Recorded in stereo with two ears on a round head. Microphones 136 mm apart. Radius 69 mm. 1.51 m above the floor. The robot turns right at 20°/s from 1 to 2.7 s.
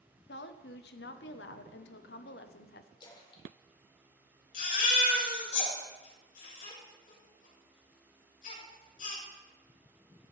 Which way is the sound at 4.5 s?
50° left (ahead or behind).